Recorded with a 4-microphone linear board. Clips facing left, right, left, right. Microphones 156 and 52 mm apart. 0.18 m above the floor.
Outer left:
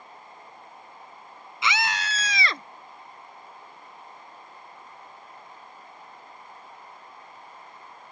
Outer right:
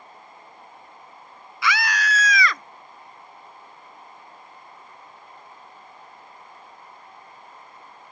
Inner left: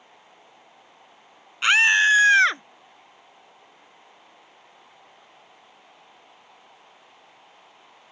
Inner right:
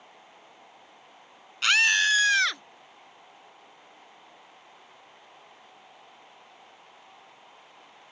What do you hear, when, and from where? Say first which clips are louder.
1.6 s a scream: outer right 3 dB, inner left 5 dB; 20° left (ahead or behind); by 2.6 s 30° left (ahead or behind)